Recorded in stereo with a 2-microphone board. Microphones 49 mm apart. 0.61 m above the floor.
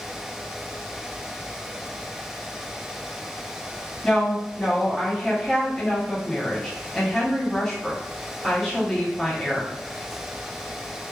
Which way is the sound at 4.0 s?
5° left (ahead or behind).